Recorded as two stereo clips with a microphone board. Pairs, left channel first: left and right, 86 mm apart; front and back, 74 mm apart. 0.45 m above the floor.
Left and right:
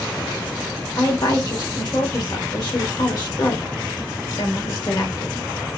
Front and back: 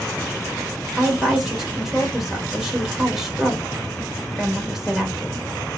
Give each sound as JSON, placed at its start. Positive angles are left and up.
{"t": 1.0, "sound": "a woman speaking", "azimuth_deg": 95, "distance_m": 1.2}